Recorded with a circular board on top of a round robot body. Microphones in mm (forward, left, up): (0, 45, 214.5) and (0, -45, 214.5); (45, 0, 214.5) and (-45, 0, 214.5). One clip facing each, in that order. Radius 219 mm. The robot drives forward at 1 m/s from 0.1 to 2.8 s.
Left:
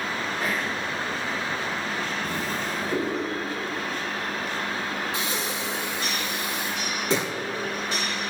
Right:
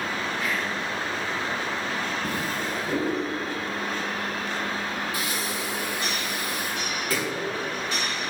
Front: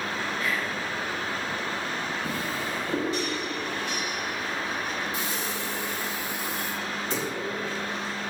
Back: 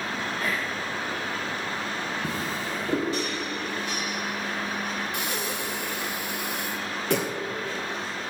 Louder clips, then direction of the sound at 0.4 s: Left 2 dB, even; 135° left.